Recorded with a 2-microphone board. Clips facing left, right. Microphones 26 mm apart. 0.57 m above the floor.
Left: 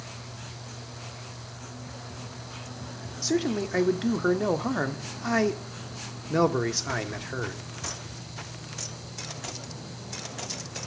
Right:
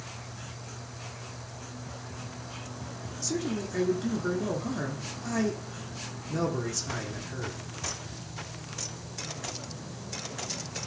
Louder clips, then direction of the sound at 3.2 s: Left 5 dB; 45° left (ahead or behind).